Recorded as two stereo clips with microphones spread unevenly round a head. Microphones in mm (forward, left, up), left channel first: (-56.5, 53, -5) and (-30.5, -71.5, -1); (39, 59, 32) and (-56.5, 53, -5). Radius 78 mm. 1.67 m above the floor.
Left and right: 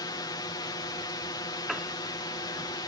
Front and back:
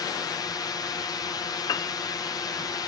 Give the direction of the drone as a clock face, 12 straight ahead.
10 o'clock.